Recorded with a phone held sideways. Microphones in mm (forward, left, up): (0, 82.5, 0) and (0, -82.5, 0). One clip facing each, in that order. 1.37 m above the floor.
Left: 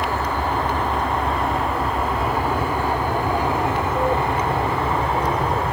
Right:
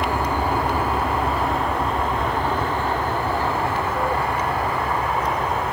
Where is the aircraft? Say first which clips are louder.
Right 1 dB; 15° right (ahead or behind); by 5.7 s 30° left (ahead or behind).